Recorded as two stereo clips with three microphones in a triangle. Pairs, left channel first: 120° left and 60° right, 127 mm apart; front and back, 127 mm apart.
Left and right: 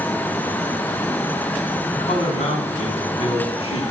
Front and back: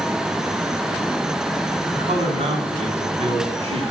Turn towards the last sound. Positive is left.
turn(degrees=150)